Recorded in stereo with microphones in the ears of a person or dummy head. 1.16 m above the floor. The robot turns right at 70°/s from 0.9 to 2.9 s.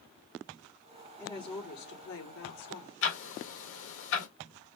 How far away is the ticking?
About 2 m.